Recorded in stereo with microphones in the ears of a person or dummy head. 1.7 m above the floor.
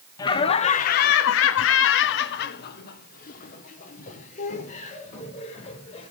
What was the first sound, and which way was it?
Laughter, 20° left (ahead or behind).